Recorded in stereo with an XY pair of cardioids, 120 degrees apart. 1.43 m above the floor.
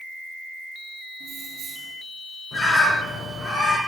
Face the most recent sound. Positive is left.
turn(degrees=25)